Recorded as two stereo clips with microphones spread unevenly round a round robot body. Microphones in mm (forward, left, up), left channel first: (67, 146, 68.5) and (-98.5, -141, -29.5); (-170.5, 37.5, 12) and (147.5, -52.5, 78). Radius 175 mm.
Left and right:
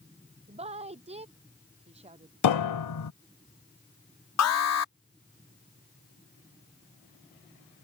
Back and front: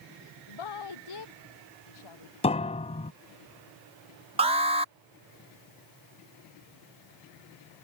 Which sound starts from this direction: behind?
A woman speaking, at 0.5 s.